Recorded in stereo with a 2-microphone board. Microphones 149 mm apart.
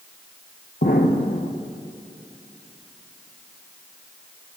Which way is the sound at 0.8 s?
85° left.